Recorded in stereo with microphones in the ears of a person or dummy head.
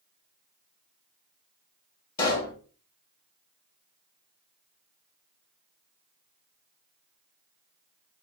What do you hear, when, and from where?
2.2 s a pop: 20° left (ahead or behind), 1.0 m